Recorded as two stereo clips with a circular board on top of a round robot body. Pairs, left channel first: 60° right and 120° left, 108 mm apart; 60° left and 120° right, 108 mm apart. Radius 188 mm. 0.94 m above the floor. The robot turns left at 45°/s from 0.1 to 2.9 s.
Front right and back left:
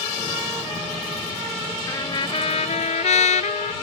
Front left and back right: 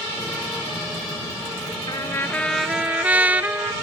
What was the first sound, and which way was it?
A trumpet, 5° left.